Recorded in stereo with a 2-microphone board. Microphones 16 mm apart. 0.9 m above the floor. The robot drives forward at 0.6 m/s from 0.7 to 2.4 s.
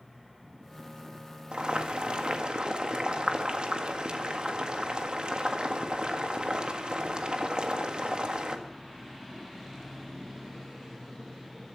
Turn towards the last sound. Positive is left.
turn(degrees=-60)  # may be behind; listen again after turning